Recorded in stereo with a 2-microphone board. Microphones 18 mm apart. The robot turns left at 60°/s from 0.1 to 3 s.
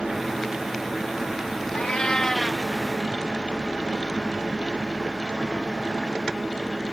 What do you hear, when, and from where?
1.7 s a cat meowing: 60° left; by 2.6 s 5° left